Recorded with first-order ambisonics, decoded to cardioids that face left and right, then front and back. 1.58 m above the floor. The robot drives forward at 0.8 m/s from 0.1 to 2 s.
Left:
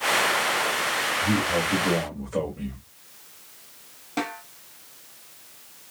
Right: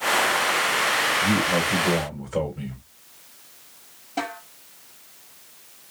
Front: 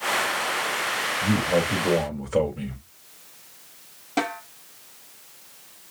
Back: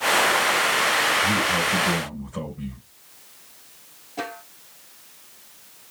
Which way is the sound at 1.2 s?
5° right.